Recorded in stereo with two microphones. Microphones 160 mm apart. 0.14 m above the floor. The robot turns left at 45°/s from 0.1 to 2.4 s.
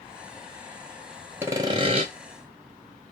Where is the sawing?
15° right (ahead or behind), 0.5 m; by 2.1 s 40° right (ahead or behind), 0.5 m.